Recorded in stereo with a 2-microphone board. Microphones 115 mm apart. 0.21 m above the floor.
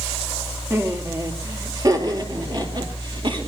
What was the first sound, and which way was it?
Laughter, 25° right (ahead or behind).